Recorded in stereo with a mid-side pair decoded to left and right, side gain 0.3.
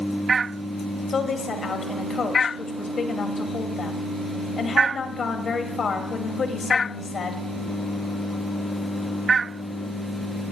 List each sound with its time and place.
1.1 s a woman speaking: 65° left, 2 m